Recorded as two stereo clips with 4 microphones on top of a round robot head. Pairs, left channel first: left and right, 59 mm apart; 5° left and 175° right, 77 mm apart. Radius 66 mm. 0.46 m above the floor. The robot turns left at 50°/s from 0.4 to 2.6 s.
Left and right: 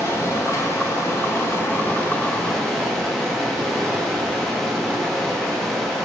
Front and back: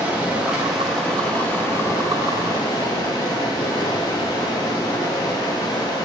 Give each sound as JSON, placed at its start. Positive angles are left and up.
{"t": 0.0, "sound": "running water", "azimuth_deg": 115, "distance_m": 1.1}